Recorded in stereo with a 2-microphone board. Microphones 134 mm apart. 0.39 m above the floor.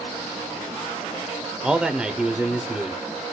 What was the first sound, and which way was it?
A man speaking, 5° right (ahead or behind).